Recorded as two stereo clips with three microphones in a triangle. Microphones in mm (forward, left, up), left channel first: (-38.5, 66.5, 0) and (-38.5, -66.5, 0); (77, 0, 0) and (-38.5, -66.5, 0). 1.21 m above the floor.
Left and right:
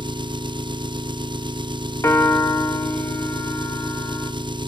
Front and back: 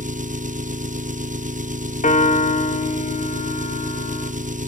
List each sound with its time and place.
0.0 s an engine running: 145° right, 0.8 m
2.0 s a piano: 20° left, 2 m